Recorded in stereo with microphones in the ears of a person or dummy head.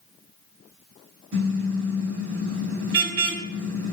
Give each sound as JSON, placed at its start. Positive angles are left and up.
{"t": 1.3, "sound": "a car horn", "side_deg": -65, "distance_m": 5.0}